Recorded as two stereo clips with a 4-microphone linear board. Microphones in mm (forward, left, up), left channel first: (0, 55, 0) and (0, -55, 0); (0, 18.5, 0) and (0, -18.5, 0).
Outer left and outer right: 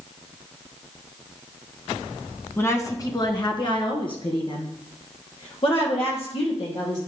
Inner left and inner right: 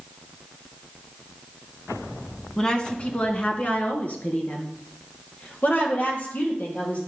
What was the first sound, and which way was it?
A woman speaking, 20° left (ahead or behind).